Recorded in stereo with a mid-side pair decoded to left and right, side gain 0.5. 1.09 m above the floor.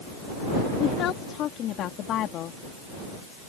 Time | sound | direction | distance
0.8 | a woman speaking | 70° left | ?